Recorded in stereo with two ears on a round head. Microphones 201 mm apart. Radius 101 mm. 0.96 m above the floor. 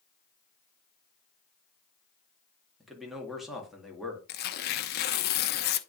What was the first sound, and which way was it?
A man speaking, centre (ahead or behind).